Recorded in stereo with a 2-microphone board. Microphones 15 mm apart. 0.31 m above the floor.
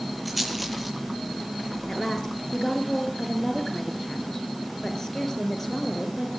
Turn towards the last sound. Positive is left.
turn(degrees=30)  # may be behind; listen again after turning